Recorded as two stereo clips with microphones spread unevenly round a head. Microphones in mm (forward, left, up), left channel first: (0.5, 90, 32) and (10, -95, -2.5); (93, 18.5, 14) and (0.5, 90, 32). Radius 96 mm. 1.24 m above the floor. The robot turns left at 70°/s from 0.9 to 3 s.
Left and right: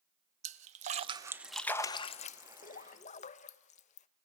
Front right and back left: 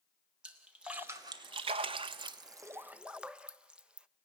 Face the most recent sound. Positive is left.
turn(degrees=70)